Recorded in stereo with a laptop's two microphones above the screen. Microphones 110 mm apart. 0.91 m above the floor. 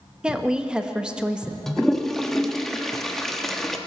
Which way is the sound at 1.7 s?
5° left (ahead or behind).